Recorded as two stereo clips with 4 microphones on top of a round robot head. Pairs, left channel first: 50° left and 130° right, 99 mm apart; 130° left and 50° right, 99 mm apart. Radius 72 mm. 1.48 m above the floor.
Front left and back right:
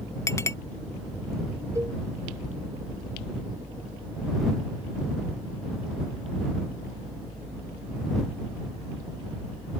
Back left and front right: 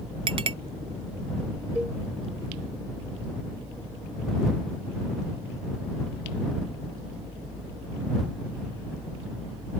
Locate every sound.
0.3 s a clink: 10° right
1.8 s a cowbell: 115° right